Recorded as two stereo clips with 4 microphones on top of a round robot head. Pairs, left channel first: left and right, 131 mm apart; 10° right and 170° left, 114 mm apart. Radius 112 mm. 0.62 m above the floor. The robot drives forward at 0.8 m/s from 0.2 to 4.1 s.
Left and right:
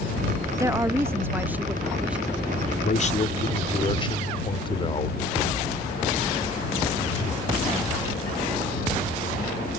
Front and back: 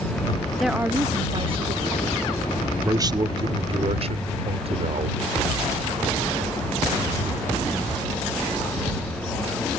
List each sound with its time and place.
0.6 s a woman speaking: 95° right; by 2.4 s 170° right
2.9 s a man speaking: 110° left; by 5.2 s 140° left